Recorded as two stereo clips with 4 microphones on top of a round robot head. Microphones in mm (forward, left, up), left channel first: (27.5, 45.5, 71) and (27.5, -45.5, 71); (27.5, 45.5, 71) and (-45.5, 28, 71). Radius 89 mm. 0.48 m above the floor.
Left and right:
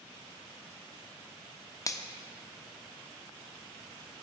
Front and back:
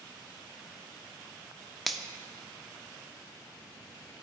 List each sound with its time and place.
1.9 s a finger snap: 100° left, 0.7 m